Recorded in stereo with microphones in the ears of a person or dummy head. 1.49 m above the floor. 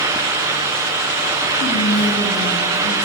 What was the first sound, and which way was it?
Whispering, 60° left (ahead or behind).